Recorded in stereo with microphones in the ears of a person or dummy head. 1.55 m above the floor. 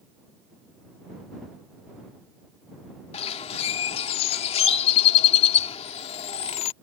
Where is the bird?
35° left (ahead or behind).